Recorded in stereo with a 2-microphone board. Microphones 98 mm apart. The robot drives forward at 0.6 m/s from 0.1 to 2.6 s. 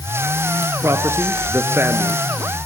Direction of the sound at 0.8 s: 30° right (ahead or behind).